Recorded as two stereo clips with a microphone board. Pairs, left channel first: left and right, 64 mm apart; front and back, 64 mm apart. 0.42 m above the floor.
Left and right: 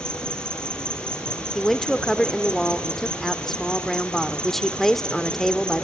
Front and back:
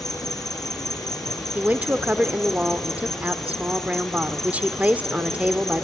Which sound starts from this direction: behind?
A woman speaking, at 1.6 s.